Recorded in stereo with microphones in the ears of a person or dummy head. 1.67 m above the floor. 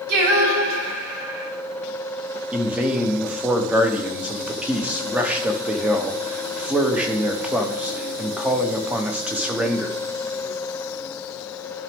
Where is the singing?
55° right (ahead or behind), 1.8 m.